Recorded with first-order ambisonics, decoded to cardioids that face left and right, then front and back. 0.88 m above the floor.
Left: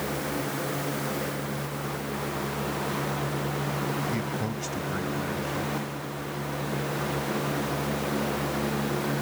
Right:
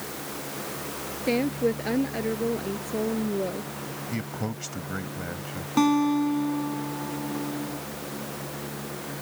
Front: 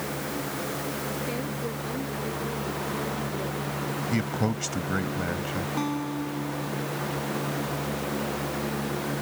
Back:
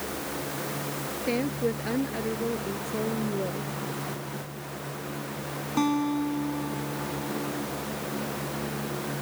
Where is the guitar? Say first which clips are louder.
Right 12 dB, back 4 dB; 105° right.